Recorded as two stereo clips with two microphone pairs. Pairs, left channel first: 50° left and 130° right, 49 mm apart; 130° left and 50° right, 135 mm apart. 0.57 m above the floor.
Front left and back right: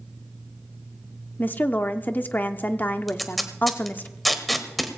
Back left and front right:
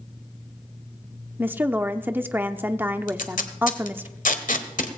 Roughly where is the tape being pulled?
Behind left.